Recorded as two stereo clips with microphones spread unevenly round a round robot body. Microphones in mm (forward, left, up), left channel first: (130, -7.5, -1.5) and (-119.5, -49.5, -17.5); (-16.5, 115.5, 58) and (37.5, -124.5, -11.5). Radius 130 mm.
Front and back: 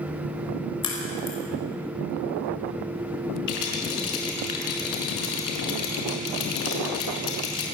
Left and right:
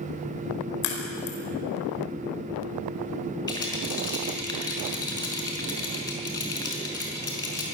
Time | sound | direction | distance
0.8 | a crack | 80° left | 5 m
3.5 | a rattle | 30° left | 5.5 m